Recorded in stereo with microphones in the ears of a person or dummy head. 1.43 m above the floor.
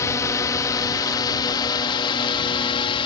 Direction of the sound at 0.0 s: 15° left (ahead or behind).